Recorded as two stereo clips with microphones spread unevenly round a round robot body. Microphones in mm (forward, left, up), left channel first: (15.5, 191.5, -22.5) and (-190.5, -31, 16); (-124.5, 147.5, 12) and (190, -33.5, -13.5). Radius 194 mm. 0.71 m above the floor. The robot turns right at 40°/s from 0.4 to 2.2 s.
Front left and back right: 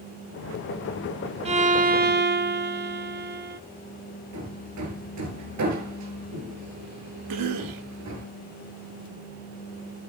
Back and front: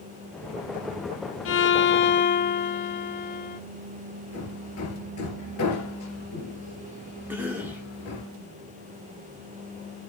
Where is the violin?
165° left, 1.0 m; by 3.6 s 165° right, 1.0 m.